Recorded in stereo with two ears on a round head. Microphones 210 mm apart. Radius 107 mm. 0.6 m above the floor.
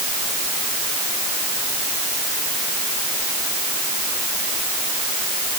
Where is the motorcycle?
I don't hear a motorcycle.